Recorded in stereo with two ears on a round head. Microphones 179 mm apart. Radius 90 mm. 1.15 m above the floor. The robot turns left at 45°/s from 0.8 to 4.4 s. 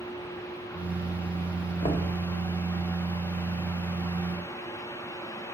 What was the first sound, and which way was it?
Knocking, 30° left (ahead or behind).